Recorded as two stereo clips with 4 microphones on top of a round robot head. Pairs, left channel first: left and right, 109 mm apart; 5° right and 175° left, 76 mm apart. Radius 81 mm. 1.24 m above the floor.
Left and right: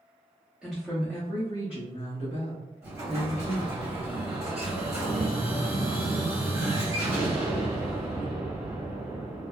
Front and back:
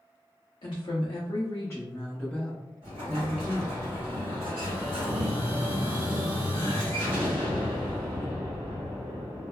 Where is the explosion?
155° right, 1.1 m.